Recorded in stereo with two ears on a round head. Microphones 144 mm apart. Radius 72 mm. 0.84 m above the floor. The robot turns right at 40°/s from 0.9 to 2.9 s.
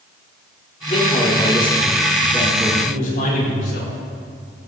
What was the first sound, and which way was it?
A man speaking, 140° left.